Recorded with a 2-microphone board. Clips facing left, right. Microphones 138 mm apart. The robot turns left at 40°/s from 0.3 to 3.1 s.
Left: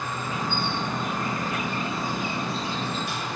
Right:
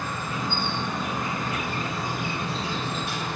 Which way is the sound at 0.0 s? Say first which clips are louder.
Even; 20° left.